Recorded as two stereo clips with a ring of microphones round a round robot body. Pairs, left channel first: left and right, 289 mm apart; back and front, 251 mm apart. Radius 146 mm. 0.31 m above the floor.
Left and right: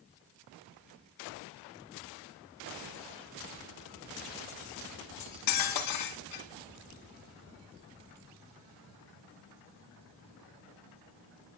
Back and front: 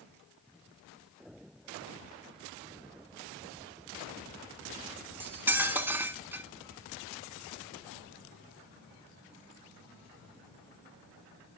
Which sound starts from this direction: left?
Cutlery clinking, at 5.2 s.